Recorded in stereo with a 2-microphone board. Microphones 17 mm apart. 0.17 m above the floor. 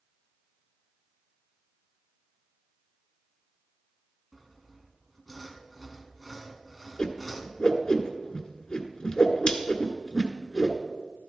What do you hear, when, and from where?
4.3 s sawing: centre (ahead or behind), 1.4 m
7.0 s a whoosh: 45° left (ahead or behind), 1.5 m